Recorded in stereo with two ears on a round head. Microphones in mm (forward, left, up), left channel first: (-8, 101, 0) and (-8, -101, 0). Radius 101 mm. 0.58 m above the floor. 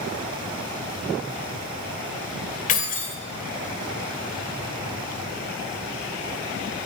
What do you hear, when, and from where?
2.7 s keys jangling: 40° left (ahead or behind), 1.5 m